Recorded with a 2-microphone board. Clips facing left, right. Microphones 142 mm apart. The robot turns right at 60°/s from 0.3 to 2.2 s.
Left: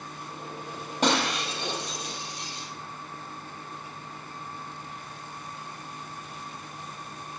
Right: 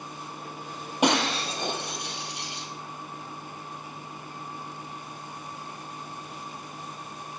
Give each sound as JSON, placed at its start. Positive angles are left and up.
{"t": 1.0, "sound": "breaking glass", "side_deg": -10, "distance_m": 3.5}